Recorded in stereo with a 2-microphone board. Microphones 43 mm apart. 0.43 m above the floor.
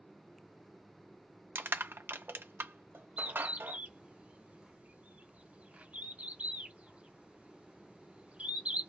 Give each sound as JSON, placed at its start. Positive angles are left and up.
{"t": 1.6, "sound": "crushing", "side_deg": -65, "distance_m": 0.5}
{"t": 3.2, "sound": "a bird", "side_deg": -35, "distance_m": 1.0}